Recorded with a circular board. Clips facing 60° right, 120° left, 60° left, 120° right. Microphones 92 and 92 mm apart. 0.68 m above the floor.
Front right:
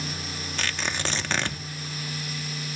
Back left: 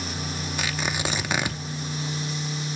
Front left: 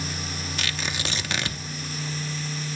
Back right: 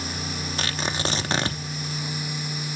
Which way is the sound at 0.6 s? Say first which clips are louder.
Back left 1 dB, back right 5 dB; 165° right.